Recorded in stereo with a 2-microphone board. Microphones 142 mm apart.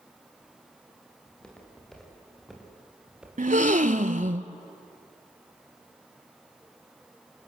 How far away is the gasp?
About 0.7 m.